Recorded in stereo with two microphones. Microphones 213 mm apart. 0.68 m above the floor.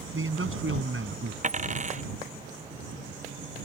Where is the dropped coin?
35° right (ahead or behind).